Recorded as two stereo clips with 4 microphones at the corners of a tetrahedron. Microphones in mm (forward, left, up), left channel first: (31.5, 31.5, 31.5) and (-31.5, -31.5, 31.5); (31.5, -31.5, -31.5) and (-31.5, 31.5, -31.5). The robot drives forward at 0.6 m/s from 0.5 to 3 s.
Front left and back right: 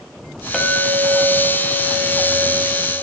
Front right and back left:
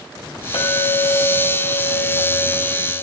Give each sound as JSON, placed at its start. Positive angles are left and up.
{"t": 0.5, "sound": "a clink", "azimuth_deg": -40, "distance_m": 5.0}